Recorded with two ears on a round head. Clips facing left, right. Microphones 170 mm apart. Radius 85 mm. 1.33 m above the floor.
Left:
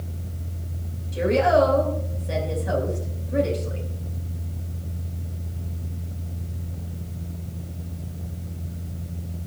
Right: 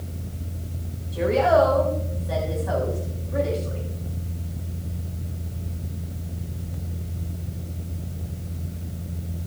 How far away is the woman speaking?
About 5.5 m.